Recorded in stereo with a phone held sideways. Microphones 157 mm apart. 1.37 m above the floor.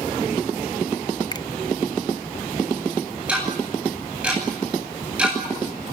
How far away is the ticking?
About 9.5 m.